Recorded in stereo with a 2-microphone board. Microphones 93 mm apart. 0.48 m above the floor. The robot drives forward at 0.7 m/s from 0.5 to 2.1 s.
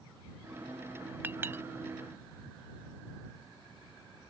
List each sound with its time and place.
1.2 s a clink: 20° right (ahead or behind); by 1.6 s 25° right (ahead or behind)